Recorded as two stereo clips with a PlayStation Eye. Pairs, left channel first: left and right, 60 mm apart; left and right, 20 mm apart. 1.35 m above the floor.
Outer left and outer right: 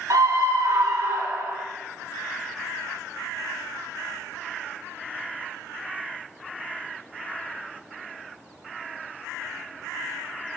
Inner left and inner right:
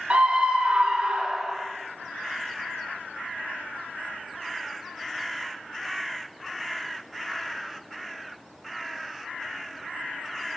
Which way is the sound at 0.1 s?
70° right (ahead or behind).